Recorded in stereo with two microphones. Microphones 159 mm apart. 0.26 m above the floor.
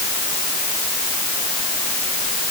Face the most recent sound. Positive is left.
No sound to turn to.